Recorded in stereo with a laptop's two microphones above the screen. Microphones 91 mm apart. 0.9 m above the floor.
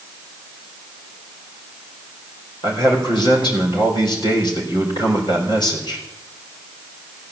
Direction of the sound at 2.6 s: 60° left (ahead or behind).